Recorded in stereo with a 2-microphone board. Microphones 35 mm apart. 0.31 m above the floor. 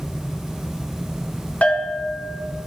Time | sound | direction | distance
1.6 | a bell | 35° left (ahead or behind) | 1.8 m